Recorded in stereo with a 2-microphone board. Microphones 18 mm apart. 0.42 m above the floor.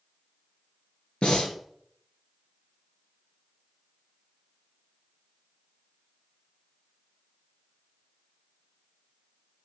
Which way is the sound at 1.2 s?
75° left (ahead or behind).